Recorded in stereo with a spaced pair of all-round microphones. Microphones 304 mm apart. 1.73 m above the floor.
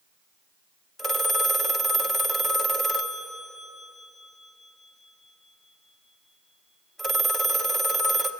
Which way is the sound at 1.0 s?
Centre (ahead or behind).